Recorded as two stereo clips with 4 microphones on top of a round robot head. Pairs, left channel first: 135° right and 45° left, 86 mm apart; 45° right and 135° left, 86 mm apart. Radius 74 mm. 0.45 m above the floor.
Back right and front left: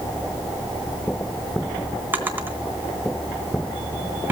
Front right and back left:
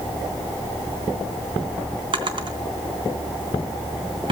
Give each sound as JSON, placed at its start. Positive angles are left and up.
{"t": 2.1, "sound": "a drawer", "azimuth_deg": 110, "distance_m": 2.5}